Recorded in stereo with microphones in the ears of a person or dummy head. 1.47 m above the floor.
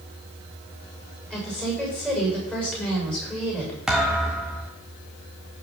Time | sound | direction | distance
1.3 | a woman speaking | 5° left (ahead or behind) | 7 m
3.9 | a thud | centre (ahead or behind) | 1.5 m